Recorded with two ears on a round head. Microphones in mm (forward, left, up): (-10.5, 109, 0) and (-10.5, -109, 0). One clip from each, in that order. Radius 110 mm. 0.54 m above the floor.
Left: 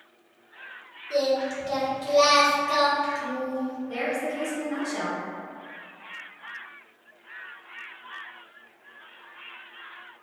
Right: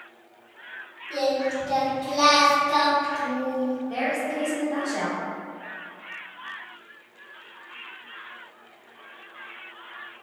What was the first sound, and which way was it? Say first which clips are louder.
Singing: even; 25° left (ahead or behind).